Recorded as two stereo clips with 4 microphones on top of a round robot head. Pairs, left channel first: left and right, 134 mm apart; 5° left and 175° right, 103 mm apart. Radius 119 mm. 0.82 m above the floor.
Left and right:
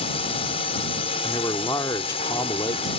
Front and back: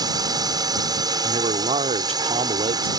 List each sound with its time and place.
0.0 s a drone: 140° left
1.2 s a man speaking: 160° left